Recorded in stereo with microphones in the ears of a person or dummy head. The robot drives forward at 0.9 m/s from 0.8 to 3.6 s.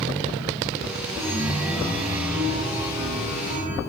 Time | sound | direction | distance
1.2 | a chime | 20° right (ahead or behind) | 2.5 m